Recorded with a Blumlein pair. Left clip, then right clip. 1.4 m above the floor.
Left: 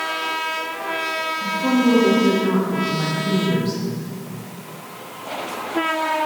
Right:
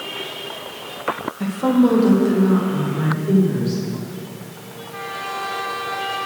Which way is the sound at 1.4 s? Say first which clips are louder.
Right 3 dB; 40° right.